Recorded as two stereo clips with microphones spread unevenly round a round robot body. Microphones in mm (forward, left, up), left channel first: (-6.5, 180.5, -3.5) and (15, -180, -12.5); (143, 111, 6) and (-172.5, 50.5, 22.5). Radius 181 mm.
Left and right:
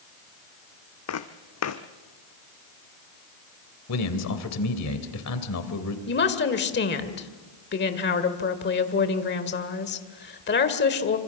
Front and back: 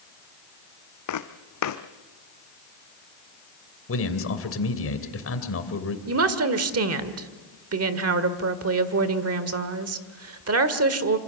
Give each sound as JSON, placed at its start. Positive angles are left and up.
{"t": 1.1, "sound": "footsteps", "azimuth_deg": 45, "distance_m": 1.4}
{"t": 3.9, "sound": "a man speaking", "azimuth_deg": 50, "distance_m": 2.5}
{"t": 6.1, "sound": "a woman speaking", "azimuth_deg": 155, "distance_m": 1.7}